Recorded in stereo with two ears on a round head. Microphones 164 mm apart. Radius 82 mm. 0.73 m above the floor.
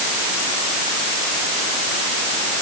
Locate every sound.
Only background noise.